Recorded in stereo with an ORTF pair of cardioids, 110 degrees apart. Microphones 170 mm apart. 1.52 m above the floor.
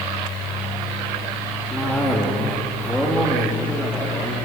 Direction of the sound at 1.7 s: 5° left.